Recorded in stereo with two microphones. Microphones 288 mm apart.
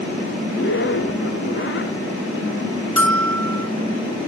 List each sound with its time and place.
0.5 s a zipper: 45° left (ahead or behind), 0.7 m
3.0 s a bell: 50° right (ahead or behind), 1.9 m